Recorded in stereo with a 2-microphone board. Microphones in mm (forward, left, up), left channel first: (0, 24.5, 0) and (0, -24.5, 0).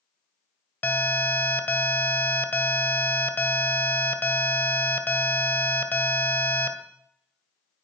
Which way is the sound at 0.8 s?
40° left (ahead or behind).